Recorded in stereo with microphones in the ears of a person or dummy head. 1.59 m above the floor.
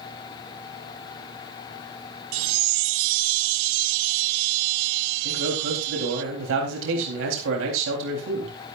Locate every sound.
2.3 s a chime: 70° right (ahead or behind), 0.5 m
5.2 s a man speaking: 75° right (ahead or behind), 4 m